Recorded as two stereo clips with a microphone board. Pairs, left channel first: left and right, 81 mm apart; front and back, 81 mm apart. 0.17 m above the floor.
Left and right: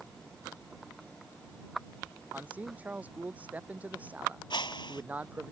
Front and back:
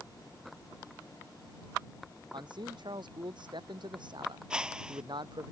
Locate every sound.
2.3 s a man speaking: 160° right
4.5 s a whoosh: 100° left